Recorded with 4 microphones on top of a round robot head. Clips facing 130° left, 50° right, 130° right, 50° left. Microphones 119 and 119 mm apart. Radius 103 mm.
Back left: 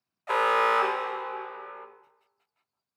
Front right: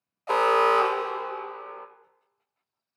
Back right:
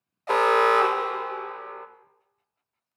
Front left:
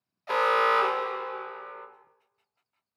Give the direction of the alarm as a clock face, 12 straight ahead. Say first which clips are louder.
Front right 3 dB, back right 4 dB; 3 o'clock.